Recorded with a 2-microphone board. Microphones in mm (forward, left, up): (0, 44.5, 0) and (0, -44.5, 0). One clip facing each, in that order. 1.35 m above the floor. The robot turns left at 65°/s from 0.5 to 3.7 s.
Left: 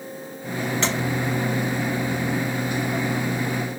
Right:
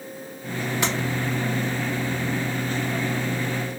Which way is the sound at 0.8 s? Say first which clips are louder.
Even; 10° right (ahead or behind).